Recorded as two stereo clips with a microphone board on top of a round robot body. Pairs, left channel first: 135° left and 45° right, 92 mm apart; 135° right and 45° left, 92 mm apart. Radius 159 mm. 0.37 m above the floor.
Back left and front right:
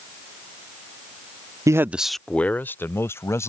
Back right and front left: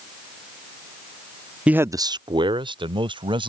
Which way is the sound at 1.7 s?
25° right.